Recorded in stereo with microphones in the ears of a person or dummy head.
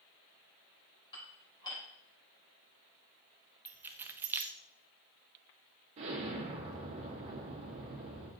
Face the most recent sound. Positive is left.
turn(degrees=-30)  # may be behind; listen again after turning